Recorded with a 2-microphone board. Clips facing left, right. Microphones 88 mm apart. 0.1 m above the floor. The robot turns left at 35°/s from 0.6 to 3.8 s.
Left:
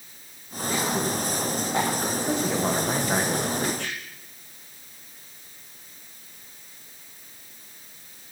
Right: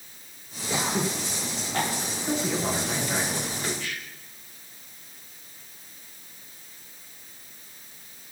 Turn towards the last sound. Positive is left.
turn(degrees=110)